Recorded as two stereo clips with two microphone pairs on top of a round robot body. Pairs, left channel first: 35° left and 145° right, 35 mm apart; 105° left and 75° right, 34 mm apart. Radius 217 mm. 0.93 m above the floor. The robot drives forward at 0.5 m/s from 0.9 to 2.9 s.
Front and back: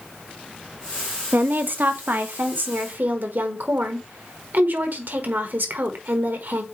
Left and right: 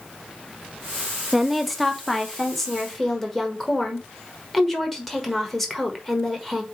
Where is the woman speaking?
155° right, 0.9 m; by 6.6 s 170° right, 1.6 m.